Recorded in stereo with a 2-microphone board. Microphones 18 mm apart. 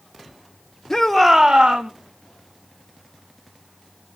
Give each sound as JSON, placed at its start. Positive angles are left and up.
{"t": 0.9, "sound": "a shout", "side_deg": 25, "distance_m": 0.8}